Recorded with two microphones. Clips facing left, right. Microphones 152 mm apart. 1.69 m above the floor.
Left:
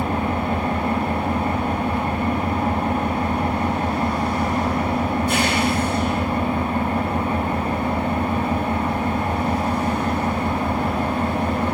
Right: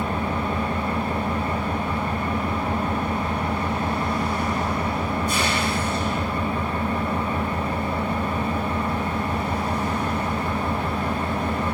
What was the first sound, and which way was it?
An engine running, 75° left (ahead or behind).